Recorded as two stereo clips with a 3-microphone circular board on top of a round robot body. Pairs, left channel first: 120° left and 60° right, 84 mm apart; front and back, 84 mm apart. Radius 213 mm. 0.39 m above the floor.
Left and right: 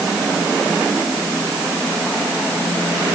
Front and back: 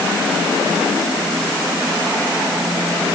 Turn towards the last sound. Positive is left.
No sound to turn to.